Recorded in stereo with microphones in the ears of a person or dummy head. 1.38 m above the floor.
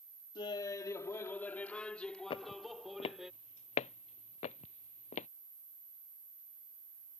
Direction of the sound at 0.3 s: 25° left (ahead or behind).